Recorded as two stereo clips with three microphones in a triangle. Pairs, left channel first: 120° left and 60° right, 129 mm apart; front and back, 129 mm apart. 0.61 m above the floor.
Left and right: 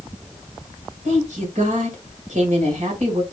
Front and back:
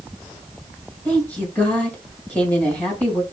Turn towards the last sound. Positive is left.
turn(degrees=-80)